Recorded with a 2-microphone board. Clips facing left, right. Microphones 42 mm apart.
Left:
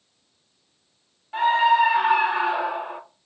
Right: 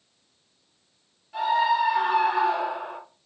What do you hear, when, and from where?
1.3 s a scream: 40° left (ahead or behind), 2.0 m; by 3.0 s 15° left (ahead or behind), 1.6 m